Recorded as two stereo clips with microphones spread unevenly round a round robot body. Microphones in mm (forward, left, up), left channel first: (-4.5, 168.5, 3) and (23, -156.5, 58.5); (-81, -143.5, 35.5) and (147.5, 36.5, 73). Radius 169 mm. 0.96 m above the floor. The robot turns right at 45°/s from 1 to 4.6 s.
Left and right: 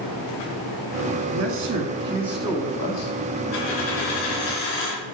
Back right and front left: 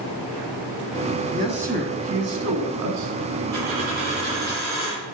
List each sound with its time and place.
1.1 s a man speaking: 50° right, 1.7 m; by 3.1 s 40° left, 1.7 m
3.5 s a dropped coin: 75° left, 3.5 m; by 5.0 s 125° left, 3.5 m